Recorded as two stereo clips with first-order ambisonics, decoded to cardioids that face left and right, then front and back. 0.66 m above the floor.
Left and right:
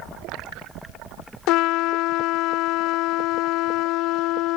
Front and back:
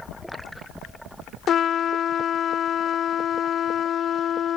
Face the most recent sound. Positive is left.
turn(degrees=60)